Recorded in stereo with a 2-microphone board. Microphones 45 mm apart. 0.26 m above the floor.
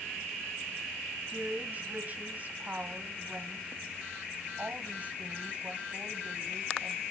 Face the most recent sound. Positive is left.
turn(degrees=-35)  # may be behind; listen again after turning